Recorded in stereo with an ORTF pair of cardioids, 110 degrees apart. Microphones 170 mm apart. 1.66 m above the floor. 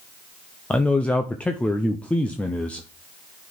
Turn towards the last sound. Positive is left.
turn(degrees=10)